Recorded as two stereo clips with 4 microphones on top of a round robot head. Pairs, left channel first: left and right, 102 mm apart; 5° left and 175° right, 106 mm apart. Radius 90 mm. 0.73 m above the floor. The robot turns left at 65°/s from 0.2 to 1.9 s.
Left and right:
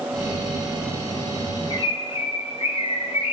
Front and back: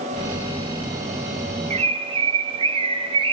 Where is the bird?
160° left, 0.6 m; by 3.3 s 145° left, 0.6 m.